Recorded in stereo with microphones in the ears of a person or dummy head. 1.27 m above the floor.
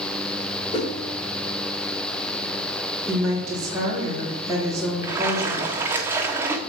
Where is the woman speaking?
20° right (ahead or behind), 3.5 m.